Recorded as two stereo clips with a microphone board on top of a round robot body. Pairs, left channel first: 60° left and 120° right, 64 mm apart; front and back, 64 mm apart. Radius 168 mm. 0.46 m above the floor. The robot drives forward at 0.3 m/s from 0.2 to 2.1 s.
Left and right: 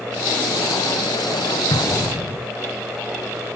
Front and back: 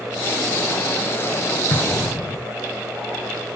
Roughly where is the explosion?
Ahead left.